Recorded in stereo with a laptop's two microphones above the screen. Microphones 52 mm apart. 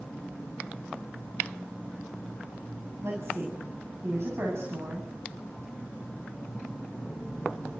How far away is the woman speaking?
About 8.5 m.